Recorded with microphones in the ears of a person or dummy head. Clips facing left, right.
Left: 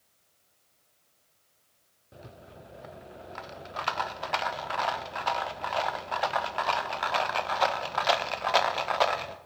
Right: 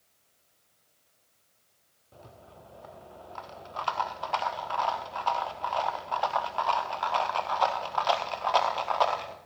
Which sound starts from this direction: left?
A rattle, at 2.1 s.